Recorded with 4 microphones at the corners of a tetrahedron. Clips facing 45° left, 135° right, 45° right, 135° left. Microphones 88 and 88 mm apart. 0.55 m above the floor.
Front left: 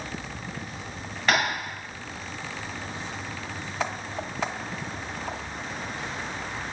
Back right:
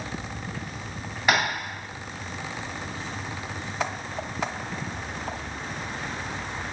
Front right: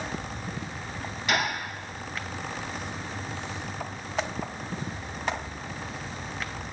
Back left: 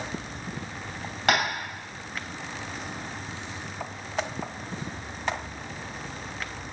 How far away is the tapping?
About 2 m.